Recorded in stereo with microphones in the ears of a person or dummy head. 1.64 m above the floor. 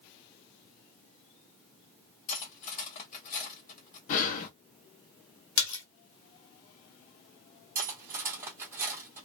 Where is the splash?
70° left (ahead or behind), 0.9 m.